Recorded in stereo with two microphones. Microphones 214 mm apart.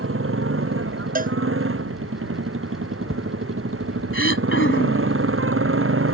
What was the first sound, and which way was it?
A motorcycle, 75° right (ahead or behind).